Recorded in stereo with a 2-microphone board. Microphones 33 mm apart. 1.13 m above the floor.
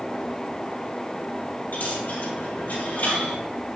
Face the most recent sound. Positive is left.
turn(degrees=75)  # may be behind; listen again after turning